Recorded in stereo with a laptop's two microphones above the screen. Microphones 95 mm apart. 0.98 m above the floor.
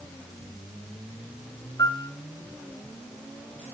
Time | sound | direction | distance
1.8 | a piano | 40° left (ahead or behind) | 2 m